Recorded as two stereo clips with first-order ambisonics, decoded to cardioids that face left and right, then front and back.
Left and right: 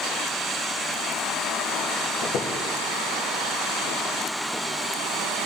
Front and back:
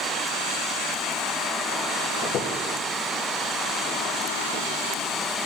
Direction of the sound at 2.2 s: 45° left.